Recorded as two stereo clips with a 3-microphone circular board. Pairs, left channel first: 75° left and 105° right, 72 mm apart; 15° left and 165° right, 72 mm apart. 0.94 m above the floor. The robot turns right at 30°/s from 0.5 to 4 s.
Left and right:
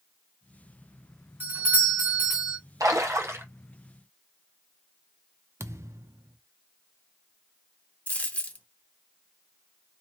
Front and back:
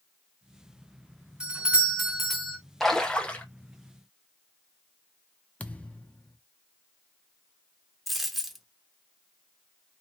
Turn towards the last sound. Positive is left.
turn(degrees=105)